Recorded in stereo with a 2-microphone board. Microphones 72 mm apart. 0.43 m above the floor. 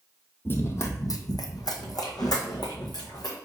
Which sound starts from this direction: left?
Running footsteps, at 0.5 s.